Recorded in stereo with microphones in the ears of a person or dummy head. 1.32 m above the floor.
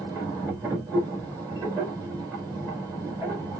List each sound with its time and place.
0.0 s a machine running: 15° right (ahead or behind), 2.5 m